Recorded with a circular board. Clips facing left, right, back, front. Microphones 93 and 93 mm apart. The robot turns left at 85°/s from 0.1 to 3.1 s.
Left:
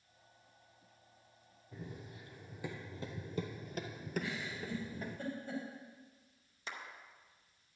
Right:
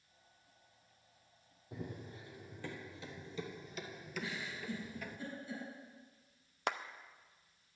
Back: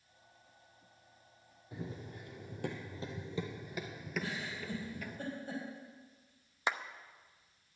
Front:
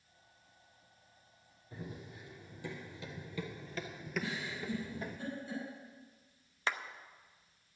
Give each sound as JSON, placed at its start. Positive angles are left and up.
{"t": 1.7, "sound": "running footsteps", "azimuth_deg": -105, "distance_m": 2.0}
{"t": 4.2, "sound": "a giggle", "azimuth_deg": 135, "distance_m": 4.0}
{"t": 6.7, "sound": "a clap", "azimuth_deg": -105, "distance_m": 0.5}